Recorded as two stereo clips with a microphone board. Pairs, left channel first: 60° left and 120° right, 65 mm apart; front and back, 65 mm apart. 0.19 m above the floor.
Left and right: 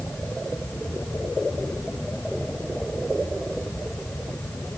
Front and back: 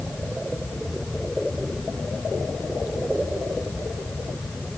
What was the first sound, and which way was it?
Only background noise.